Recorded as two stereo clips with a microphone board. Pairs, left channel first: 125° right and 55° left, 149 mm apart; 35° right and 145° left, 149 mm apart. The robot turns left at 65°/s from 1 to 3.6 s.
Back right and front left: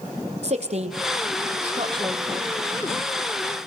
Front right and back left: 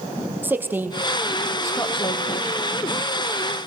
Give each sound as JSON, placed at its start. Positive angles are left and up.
{"t": 0.4, "sound": "a woman speaking", "azimuth_deg": 75, "distance_m": 2.5}